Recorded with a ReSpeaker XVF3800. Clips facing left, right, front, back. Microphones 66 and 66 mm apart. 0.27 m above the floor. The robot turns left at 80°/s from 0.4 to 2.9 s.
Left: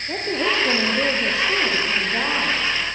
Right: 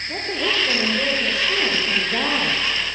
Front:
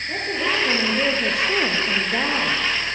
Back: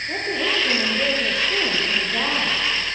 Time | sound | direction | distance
0.1 | a woman speaking | 100° left | 7 m